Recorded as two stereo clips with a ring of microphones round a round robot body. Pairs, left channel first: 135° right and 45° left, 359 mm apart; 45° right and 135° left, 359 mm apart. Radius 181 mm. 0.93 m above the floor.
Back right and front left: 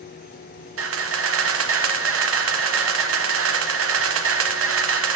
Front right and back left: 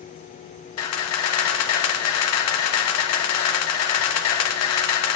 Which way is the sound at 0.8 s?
5° right.